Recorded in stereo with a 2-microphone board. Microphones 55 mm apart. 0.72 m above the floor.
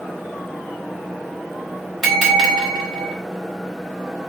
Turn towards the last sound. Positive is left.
turn(degrees=0)  # may be behind; listen again after turning